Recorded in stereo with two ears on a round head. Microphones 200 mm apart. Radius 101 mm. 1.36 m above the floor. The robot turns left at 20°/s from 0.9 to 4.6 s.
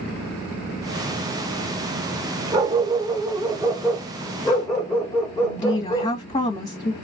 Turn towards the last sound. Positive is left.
turn(degrees=30)  # may be behind; listen again after turning